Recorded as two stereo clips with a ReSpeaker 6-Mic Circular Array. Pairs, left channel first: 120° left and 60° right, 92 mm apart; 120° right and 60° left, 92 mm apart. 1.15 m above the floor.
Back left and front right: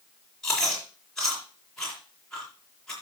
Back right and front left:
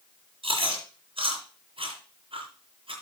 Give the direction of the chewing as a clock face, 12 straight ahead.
11 o'clock.